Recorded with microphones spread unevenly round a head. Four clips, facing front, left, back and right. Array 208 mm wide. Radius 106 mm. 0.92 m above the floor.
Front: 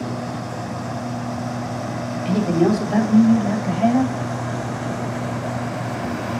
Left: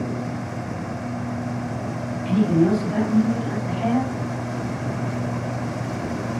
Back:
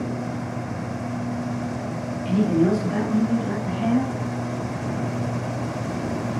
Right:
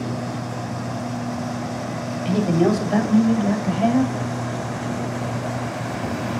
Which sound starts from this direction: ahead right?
A man speaking, at 2.2 s.